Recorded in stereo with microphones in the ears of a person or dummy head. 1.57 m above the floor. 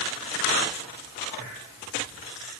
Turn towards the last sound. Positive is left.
No sound to turn to.